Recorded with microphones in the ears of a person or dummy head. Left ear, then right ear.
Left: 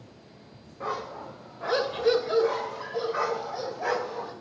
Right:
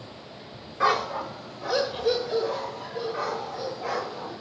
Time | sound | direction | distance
0.8 | a dog barking | 40° right (ahead or behind) | 1.0 m